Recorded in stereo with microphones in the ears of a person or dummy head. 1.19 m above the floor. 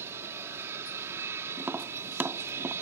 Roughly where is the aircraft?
Centre.